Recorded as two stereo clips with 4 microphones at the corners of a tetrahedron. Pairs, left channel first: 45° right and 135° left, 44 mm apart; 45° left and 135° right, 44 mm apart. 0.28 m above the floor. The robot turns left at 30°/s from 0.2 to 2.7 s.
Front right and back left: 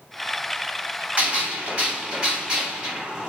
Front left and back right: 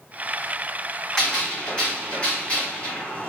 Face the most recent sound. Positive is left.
turn(degrees=75)